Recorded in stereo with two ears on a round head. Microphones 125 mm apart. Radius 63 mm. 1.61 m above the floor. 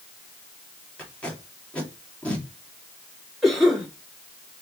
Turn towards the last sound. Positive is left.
turn(degrees=0)  # may be behind; listen again after turning